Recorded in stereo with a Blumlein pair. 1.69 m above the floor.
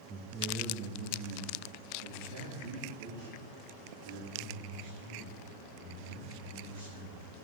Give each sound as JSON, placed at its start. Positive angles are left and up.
{"t": 0.1, "sound": "a man speaking", "azimuth_deg": -25, "distance_m": 0.9}